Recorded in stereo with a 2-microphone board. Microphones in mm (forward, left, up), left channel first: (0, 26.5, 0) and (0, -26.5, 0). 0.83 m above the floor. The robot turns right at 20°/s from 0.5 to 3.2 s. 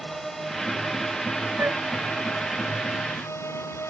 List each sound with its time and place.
0.0 s a drone: 5° left; by 3.9 s 60° left
1.6 s a flute: 50° right (ahead or behind); by 1.8 s 45° right (ahead or behind)